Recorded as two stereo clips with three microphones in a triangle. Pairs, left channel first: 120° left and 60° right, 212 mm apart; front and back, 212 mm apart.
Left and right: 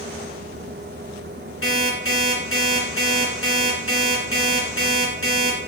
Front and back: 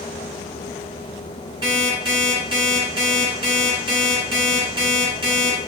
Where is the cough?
I don't hear a cough.